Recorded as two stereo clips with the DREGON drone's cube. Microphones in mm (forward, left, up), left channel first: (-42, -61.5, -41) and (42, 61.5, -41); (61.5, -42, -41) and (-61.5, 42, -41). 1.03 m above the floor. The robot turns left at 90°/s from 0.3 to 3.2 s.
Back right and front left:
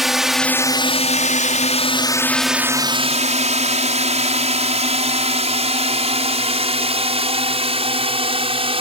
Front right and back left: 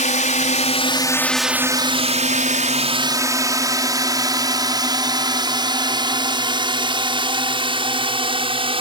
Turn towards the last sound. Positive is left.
turn(degrees=100)